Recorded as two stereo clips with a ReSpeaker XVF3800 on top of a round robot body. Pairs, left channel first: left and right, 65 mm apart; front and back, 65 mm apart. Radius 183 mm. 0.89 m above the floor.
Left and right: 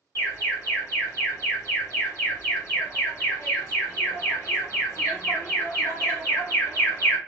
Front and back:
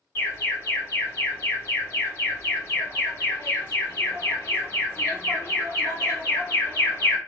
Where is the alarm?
50° left, 1.9 m.